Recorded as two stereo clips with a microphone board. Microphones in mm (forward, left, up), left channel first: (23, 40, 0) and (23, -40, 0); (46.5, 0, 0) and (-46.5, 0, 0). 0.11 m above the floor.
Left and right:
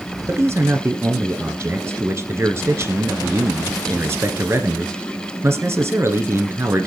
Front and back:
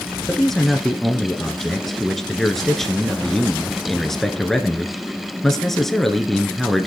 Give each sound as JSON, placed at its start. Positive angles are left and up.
{"t": 0.3, "sound": "a man speaking", "azimuth_deg": -85, "distance_m": 1.4}